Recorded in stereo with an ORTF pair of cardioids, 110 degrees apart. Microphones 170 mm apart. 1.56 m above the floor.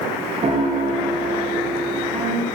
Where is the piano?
35° right, 2.0 m.